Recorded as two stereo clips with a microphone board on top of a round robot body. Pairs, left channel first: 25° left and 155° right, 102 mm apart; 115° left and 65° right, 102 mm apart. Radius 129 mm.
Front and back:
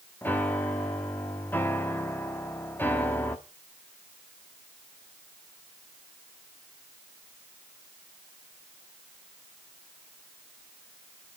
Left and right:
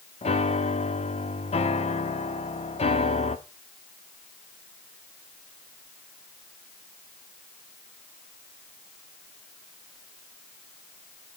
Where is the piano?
95° left, 1.4 m.